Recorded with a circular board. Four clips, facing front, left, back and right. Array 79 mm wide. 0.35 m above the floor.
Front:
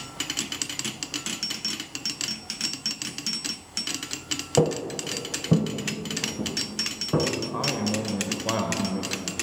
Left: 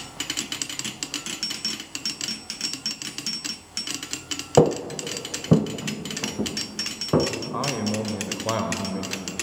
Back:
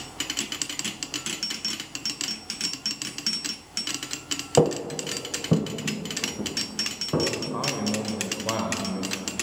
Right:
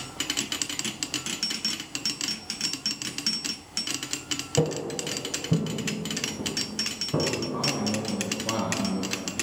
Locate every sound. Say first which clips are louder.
4.6 s footsteps: left 8 dB, back 2 dB; 110° left, 0.5 m; by 7.3 s 90° left, 2.0 m
7.5 s a man speaking: left 2 dB, front 1 dB; 85° left, 0.9 m